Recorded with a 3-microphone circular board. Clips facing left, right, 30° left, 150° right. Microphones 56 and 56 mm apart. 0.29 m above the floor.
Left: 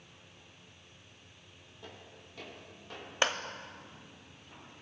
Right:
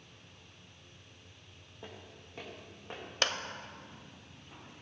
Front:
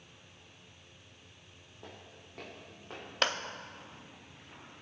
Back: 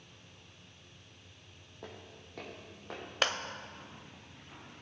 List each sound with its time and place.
1.8 s footsteps: 155° right, 4 m; by 3.0 s 150° right, 4.5 m
3.2 s a clap: 125° left, 0.7 m